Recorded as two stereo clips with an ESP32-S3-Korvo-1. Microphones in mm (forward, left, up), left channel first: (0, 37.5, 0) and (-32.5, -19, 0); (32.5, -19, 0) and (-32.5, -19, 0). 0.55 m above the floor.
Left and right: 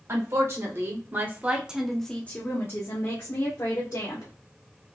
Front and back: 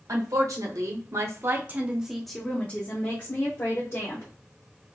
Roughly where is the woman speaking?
Behind right.